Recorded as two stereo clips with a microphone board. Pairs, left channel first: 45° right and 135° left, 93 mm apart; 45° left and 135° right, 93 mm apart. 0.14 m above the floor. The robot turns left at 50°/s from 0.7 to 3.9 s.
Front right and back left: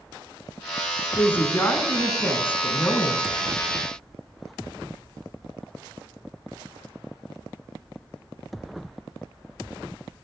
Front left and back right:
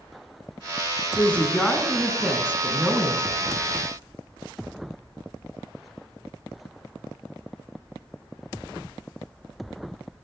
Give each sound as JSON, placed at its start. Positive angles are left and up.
{"t": 1.2, "sound": "a woman speaking", "azimuth_deg": -5, "distance_m": 1.1}